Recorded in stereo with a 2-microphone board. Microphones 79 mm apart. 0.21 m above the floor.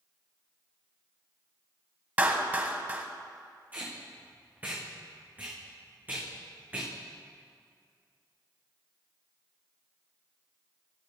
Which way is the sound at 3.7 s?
20° right (ahead or behind).